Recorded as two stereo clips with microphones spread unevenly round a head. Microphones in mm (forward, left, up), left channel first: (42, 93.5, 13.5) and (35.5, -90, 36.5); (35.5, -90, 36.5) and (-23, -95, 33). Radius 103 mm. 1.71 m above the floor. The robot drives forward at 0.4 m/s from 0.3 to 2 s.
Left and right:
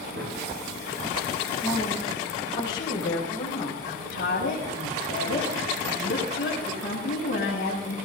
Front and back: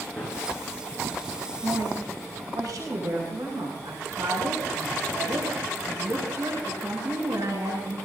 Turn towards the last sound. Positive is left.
turn(degrees=135)